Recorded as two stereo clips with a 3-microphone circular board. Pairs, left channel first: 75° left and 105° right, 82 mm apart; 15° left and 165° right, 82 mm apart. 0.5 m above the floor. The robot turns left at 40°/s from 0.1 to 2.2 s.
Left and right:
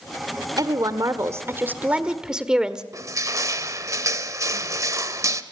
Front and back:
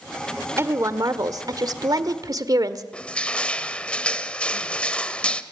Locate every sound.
0.6 s a woman speaking: 115° right, 1.4 m; by 2.8 s straight behind, 1.4 m
2.9 s crushing: 60° right, 1.1 m